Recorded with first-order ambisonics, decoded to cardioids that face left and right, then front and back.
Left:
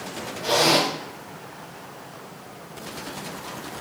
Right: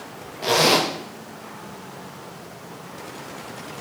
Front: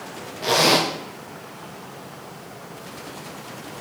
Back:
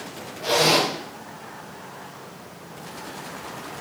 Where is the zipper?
50° right, 0.9 m.